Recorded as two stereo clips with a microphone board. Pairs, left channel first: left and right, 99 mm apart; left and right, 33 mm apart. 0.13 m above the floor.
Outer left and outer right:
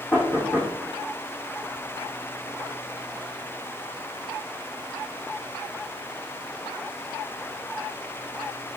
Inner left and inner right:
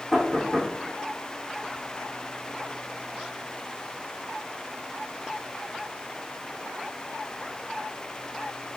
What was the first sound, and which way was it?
Knocking, 10° left (ahead or behind).